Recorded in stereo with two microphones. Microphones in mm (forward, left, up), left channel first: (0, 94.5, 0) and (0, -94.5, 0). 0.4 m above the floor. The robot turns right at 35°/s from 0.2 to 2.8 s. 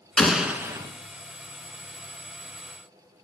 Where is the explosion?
5° left (ahead or behind), 0.6 m; by 0.9 s 20° right (ahead or behind), 0.6 m.